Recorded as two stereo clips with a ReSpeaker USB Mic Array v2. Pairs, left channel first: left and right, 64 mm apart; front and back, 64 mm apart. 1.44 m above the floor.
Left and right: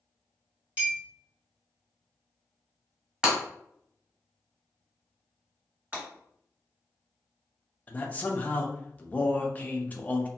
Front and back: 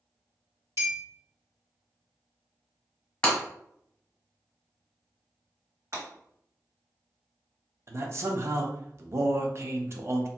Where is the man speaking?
150° left, 0.5 m.